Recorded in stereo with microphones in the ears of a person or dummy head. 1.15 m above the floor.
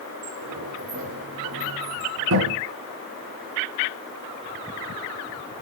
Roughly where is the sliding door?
Right.